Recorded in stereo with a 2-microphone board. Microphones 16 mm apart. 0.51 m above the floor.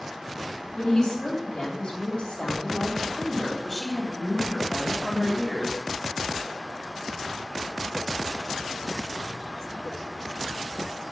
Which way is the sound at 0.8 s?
75° left (ahead or behind).